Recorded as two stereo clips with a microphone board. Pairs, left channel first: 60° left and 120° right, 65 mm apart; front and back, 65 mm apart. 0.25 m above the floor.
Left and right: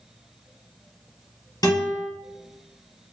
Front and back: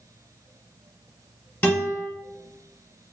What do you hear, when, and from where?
1.6 s a guitar: 60° left, 1.6 m